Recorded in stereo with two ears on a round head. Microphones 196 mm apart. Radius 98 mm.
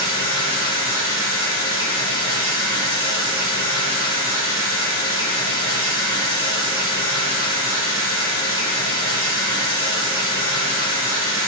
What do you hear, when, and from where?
0.0 s running water: 25° right (ahead or behind), 2 m